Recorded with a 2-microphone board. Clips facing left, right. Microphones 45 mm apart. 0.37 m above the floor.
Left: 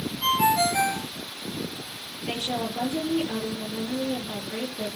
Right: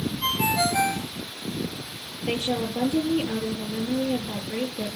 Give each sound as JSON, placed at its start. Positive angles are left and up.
{"t": 0.2, "sound": "a ringtone", "side_deg": 0, "distance_m": 4.0}
{"t": 2.3, "sound": "a woman speaking", "side_deg": -20, "distance_m": 7.0}